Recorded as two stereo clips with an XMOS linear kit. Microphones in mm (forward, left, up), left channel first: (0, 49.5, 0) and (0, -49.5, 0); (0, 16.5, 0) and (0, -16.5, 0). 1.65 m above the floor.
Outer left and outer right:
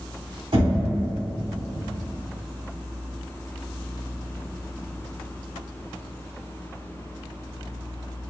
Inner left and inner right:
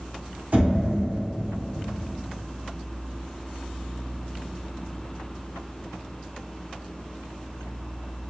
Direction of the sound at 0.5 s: 55° right (ahead or behind).